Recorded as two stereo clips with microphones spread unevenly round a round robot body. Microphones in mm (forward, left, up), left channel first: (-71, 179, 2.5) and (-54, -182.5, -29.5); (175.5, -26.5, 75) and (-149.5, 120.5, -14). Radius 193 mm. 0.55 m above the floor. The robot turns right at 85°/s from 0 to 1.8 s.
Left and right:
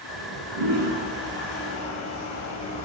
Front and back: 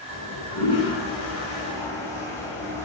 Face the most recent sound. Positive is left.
turn(degrees=50)